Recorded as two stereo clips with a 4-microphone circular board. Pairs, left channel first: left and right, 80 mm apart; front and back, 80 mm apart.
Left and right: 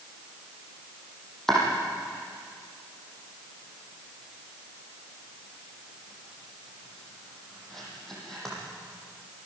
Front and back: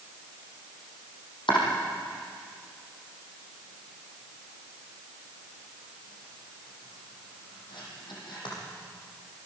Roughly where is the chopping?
Ahead.